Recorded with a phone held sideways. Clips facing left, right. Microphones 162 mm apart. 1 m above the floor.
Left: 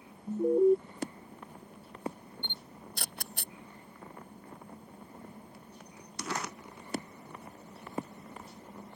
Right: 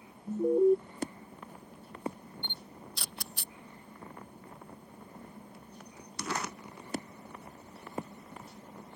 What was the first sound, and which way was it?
An alarm, centre (ahead or behind).